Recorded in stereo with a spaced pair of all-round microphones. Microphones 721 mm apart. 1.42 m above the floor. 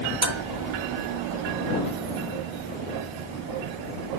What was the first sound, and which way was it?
Dishes clattering, 80° right.